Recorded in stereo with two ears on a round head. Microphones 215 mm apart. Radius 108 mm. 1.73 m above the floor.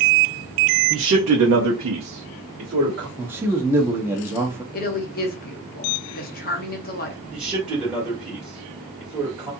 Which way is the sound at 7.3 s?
5° right (ahead or behind).